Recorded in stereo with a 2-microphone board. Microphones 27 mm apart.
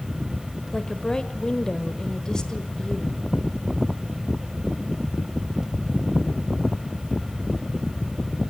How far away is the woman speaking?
About 1.5 m.